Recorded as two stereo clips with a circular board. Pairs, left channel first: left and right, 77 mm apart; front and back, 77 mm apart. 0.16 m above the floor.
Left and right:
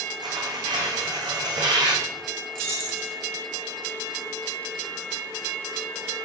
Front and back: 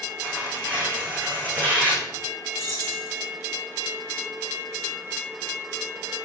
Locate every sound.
0.2 s tearing paper: 115° right, 5 m
2.5 s keys jangling: 145° right, 8.5 m